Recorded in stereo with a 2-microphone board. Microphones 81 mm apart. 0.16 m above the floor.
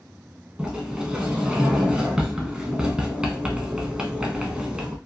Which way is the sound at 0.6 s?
10° right (ahead or behind).